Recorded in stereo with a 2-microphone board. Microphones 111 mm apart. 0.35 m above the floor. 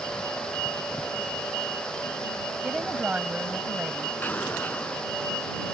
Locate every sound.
2.6 s a woman speaking: 15° right (ahead or behind)
4.2 s an explosion: 15° left (ahead or behind)